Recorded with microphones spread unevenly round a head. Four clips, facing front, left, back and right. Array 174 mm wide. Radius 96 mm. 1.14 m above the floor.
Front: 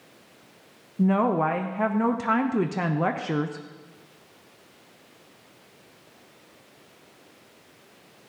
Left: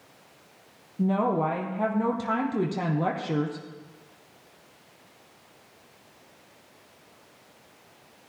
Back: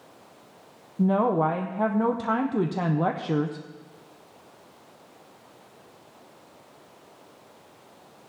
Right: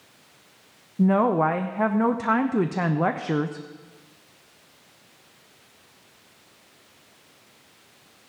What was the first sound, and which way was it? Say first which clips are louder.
A woman speaking: right 5 dB, even; 155° right.